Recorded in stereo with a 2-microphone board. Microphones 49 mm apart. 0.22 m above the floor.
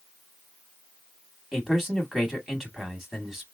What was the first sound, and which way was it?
A man speaking, 10° right (ahead or behind).